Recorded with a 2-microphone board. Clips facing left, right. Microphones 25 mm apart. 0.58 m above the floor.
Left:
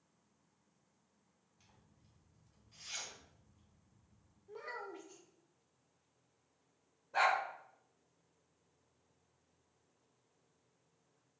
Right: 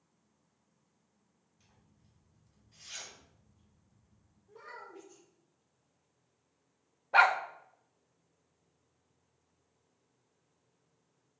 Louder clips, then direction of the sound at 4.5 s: Left 3 dB; 50° left (ahead or behind).